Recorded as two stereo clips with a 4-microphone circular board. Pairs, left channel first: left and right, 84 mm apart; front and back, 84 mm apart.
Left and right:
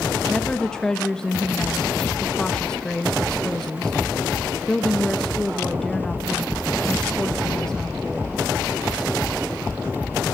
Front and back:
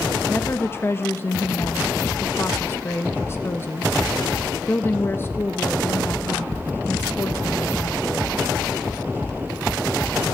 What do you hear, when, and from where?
0.3 s a woman speaking: 15° left, 1.0 m